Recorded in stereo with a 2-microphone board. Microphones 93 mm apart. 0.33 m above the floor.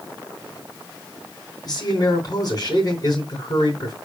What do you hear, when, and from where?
1.6 s a man speaking: 45° left (ahead or behind), 4 m